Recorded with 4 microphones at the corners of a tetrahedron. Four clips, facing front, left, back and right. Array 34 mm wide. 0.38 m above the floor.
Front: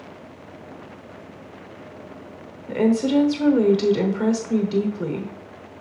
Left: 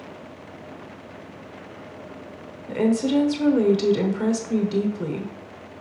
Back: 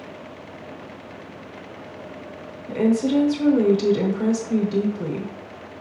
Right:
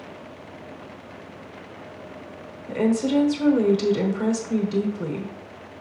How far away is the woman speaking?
About 1.0 m.